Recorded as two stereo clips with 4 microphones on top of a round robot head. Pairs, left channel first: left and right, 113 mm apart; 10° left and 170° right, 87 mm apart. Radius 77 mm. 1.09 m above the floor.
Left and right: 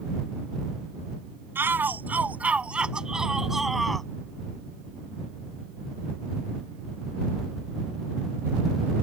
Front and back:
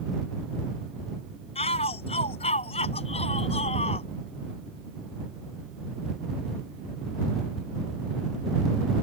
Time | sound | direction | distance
1.6 | a shout | 20° right | ?